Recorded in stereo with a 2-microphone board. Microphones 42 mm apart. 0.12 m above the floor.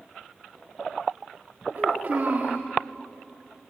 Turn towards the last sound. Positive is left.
turn(degrees=-50)  # may be behind; listen again after turning